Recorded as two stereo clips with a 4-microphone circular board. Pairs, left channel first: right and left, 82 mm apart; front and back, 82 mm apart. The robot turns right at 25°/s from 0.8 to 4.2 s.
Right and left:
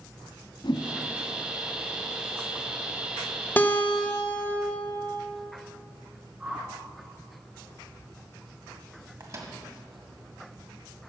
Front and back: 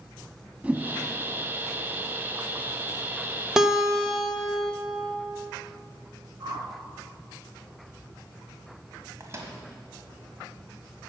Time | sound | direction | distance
0.6 | a whoosh | 110° right | 0.7 m
3.6 | a guitar | 105° right | 1.2 m
6.4 | a whoosh | 165° left | 1.2 m
9.2 | a microwave | 130° left | 1.7 m